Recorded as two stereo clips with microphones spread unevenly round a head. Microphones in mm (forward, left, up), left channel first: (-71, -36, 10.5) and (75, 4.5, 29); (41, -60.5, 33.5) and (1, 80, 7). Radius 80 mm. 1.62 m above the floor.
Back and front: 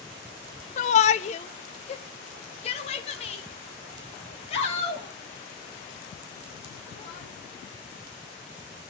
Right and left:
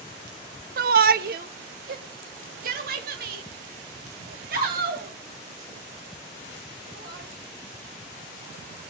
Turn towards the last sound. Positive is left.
turn(degrees=140)